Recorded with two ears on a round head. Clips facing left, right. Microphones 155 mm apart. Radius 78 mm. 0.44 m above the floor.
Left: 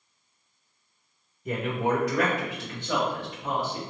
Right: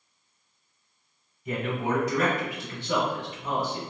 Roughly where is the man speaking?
Left.